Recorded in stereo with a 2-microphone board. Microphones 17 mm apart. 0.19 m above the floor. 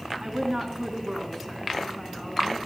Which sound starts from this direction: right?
A woman speaking, at 0.2 s.